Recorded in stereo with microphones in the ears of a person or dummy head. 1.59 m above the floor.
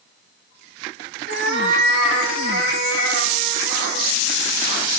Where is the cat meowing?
65° right (ahead or behind), 2 m; by 4.2 s 70° right (ahead or behind), 4.5 m.